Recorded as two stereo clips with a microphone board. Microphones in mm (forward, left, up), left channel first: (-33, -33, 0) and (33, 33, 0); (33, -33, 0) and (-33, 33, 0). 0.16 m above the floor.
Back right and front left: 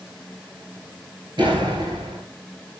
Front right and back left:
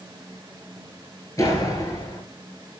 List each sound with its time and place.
1.4 s a door slam: 10° left, 9.5 m